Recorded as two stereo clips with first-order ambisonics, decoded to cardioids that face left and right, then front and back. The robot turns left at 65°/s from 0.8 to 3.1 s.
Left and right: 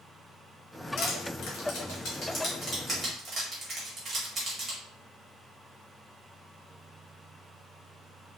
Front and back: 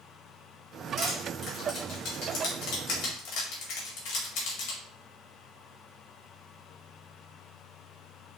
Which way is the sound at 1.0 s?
120° left.